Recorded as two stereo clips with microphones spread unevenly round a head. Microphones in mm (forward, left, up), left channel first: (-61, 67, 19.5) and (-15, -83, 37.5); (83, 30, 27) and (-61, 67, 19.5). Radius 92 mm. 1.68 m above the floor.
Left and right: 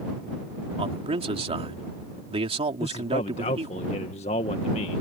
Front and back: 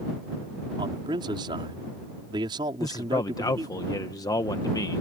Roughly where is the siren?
I don't hear a siren.